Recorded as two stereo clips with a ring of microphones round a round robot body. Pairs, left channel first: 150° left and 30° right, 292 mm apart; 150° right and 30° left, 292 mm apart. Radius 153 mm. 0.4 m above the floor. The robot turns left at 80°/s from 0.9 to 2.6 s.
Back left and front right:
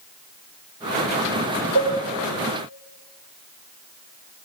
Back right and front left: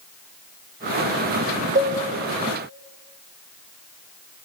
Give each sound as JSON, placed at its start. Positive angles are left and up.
{"t": 1.8, "sound": "a cowbell", "azimuth_deg": -35, "distance_m": 4.0}